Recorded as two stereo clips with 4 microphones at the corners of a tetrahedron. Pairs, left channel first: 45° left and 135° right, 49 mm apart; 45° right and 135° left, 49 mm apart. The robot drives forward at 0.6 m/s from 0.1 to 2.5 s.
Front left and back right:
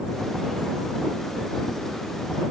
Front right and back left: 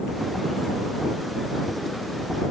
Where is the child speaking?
No child speaking in this recording.